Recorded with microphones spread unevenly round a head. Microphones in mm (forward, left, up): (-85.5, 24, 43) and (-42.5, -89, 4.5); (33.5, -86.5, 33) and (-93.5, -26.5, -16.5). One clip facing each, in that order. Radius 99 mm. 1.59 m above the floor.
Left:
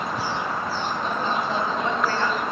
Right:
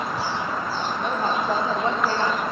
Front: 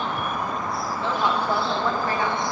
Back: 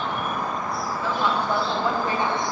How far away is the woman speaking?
About 1.9 m.